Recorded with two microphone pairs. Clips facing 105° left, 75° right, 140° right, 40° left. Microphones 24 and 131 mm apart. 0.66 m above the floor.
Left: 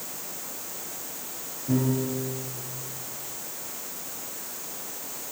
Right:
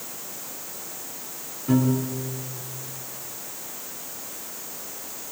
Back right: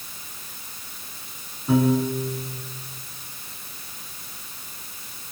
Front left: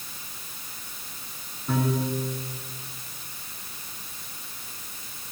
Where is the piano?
65° right, 8.5 m.